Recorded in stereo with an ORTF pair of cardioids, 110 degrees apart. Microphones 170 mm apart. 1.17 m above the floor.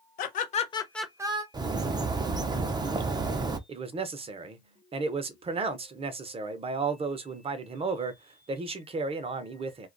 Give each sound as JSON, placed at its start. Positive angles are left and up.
{"t": 0.2, "sound": "laughter", "azimuth_deg": 65, "distance_m": 1.2}
{"t": 1.5, "sound": "a bird", "azimuth_deg": -25, "distance_m": 0.5}
{"t": 3.7, "sound": "a man speaking", "azimuth_deg": -35, "distance_m": 0.7}